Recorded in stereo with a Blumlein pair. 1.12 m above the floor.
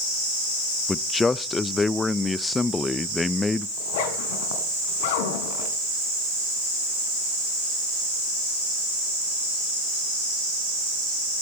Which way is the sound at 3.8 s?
50° left.